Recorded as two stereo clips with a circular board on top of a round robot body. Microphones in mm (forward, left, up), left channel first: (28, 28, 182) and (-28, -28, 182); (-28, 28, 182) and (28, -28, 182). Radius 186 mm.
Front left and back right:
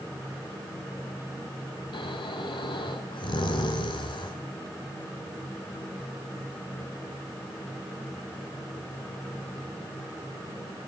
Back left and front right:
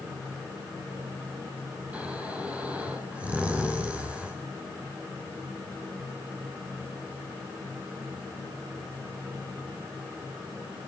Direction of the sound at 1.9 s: 30° left.